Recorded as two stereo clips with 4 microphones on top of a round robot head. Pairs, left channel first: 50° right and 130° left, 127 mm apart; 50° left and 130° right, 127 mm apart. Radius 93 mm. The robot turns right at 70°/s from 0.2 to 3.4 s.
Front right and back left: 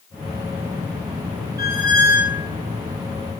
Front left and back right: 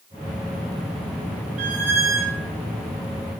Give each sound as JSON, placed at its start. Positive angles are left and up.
{"t": 1.6, "sound": "a squeak", "azimuth_deg": -165, "distance_m": 0.8}